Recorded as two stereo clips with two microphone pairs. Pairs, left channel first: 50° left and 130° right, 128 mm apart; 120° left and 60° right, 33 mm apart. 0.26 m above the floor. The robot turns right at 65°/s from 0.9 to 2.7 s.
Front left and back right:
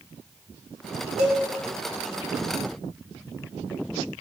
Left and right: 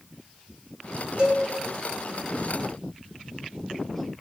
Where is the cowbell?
95° right, 0.7 m; by 1.4 s 80° right, 0.7 m.